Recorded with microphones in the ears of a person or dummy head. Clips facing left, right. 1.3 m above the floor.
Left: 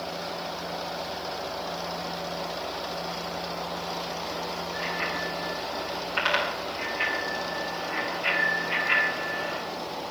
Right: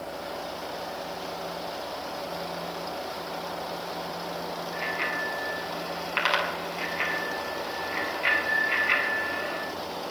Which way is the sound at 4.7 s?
80° right.